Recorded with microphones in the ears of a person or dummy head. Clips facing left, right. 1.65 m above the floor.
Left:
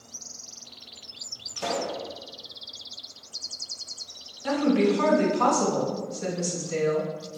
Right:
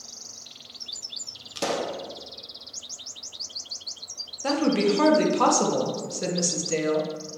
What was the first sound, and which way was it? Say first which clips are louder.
A pop: right 2 dB; 60° right (ahead or behind).